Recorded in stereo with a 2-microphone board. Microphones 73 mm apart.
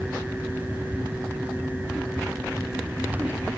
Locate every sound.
Only background noise.